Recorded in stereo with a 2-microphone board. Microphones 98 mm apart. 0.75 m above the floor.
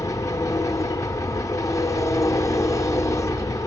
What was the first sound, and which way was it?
An engine running, 35° left (ahead or behind).